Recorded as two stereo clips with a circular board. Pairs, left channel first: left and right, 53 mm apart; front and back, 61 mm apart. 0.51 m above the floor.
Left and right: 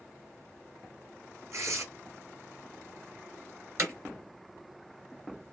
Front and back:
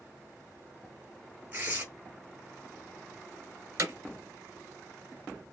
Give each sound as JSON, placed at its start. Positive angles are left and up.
{"t": 1.5, "sound": "tearing paper", "azimuth_deg": -120, "distance_m": 3.0}
{"t": 3.8, "sound": "hammering", "azimuth_deg": -130, "distance_m": 3.0}